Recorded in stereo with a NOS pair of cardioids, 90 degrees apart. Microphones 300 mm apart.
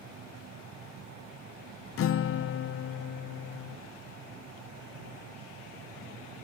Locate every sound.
0.0 s a fan: 65° right
2.0 s a guitar: 50° left